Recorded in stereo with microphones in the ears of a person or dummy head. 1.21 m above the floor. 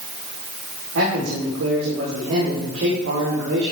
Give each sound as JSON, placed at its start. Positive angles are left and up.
{"t": 0.9, "sound": "a man speaking", "side_deg": -75, "distance_m": 4.5}